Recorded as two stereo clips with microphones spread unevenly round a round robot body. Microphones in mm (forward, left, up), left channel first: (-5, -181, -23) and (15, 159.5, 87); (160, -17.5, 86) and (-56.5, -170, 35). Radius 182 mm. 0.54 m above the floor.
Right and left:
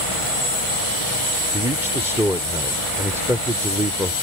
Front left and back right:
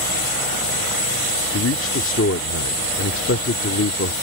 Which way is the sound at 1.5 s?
5° right.